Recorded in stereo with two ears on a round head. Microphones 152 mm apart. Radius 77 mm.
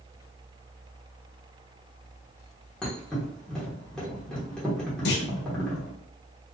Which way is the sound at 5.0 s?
70° left (ahead or behind).